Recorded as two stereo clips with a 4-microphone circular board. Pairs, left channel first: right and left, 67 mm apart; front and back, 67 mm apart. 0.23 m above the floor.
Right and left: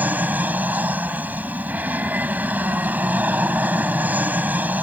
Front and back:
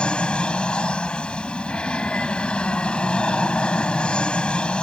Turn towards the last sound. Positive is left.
turn(degrees=55)